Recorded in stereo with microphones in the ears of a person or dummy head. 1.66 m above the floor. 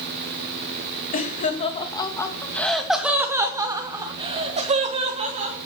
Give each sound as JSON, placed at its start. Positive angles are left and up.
{"t": 1.1, "sound": "laughter", "side_deg": 45, "distance_m": 2.5}